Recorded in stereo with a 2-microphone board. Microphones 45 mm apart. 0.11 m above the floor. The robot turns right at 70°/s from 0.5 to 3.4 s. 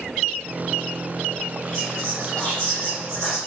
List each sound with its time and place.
1.7 s whispering: 15° left (ahead or behind), 1.7 m; by 3.4 s 5° left (ahead or behind), 1.7 m